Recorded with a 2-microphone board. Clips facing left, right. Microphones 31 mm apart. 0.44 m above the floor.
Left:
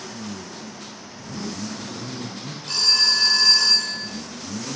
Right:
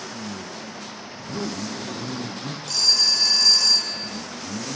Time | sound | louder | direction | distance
1.1 | a zipper | right 2 dB | 75° right (ahead or behind) | 3.5 m
2.7 | a phone ringing | left 1 dB | 35° left (ahead or behind) | 2.5 m